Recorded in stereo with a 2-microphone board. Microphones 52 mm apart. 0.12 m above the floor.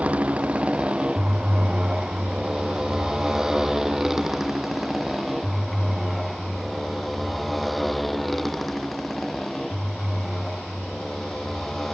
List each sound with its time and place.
0.0 s a motorcycle: 25° right (ahead or behind); by 11.9 s 10° left (ahead or behind)